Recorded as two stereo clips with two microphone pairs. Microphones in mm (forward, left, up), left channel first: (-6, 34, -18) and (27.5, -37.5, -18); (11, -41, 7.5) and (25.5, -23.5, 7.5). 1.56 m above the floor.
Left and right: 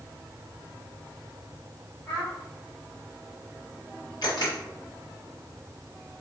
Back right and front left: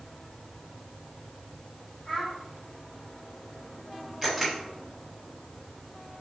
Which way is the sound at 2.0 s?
175° left.